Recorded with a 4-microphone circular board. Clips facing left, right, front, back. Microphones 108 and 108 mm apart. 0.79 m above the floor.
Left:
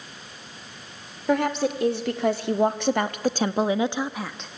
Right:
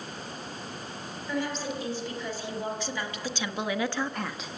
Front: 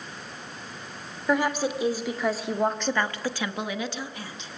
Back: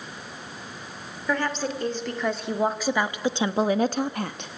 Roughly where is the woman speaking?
Left.